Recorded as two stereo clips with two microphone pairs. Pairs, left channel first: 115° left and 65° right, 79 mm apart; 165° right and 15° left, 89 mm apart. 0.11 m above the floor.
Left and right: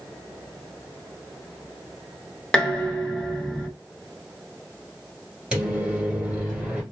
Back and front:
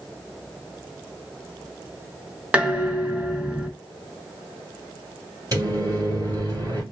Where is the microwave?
10° left, 1.7 m.